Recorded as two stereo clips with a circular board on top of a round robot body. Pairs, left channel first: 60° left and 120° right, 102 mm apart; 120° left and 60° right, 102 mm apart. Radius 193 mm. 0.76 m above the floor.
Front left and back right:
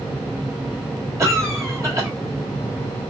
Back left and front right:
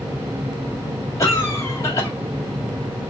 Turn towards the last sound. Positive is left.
turn(degrees=180)